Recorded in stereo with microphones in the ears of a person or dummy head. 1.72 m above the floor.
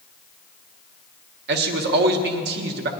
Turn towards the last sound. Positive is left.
turn(degrees=-70)  # may be behind; listen again after turning